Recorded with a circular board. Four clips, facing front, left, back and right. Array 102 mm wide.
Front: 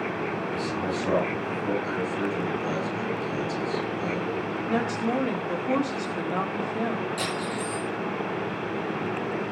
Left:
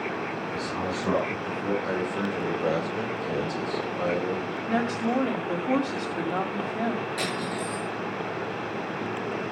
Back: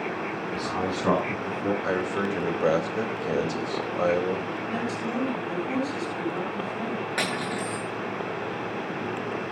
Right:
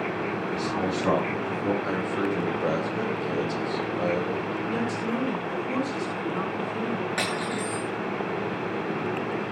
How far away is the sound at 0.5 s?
About 6 m.